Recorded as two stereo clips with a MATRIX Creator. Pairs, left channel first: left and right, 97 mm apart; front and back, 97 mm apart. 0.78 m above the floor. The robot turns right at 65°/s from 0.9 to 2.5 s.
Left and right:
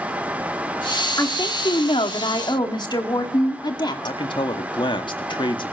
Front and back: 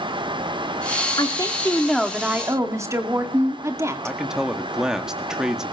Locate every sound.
1.2 s a woman speaking: 35° left, 2 m; by 4.2 s 120° left, 2 m
4.0 s a man speaking: 95° left, 1.8 m